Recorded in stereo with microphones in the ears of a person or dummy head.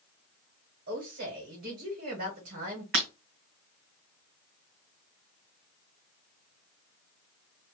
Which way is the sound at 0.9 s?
55° right (ahead or behind).